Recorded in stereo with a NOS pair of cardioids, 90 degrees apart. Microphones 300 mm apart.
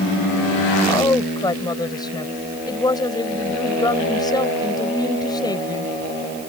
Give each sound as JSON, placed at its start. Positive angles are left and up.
{"t": 0.9, "sound": "a woman speaking", "azimuth_deg": 15}